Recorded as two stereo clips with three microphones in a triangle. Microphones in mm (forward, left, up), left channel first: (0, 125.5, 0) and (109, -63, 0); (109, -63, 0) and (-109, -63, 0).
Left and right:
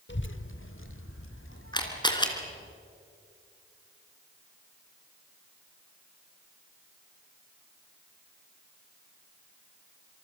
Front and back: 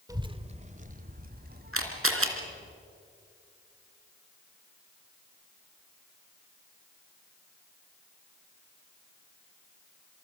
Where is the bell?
No bell in this recording.